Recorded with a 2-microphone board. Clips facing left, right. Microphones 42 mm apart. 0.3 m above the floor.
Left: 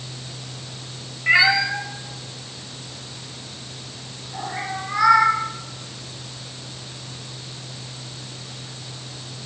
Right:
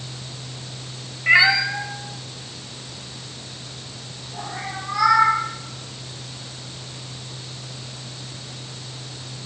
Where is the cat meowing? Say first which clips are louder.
Right 1 dB; 5° right (ahead or behind), 0.6 m; by 5.3 s 35° left (ahead or behind), 2.5 m.